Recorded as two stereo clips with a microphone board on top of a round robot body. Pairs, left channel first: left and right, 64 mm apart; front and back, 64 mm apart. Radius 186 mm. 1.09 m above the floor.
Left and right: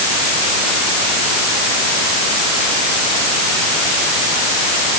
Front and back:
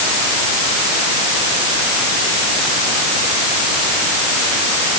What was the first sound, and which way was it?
Only background noise.